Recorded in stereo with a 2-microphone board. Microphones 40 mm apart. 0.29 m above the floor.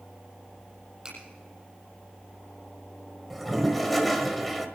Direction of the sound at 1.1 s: 15° right (ahead or behind).